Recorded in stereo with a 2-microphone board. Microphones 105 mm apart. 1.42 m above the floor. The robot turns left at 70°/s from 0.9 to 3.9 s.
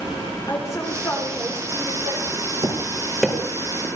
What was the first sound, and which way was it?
A woman speaking, 30° left.